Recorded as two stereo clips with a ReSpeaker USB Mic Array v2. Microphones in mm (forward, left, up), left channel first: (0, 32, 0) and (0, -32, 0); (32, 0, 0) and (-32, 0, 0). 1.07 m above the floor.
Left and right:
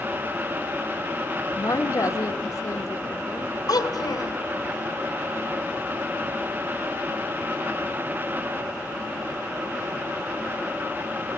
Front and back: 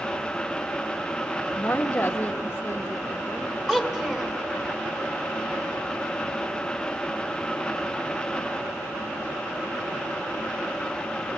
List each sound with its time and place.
1.6 s a woman speaking: 70° left, 1.4 m
3.7 s a child speaking: 105° left, 3 m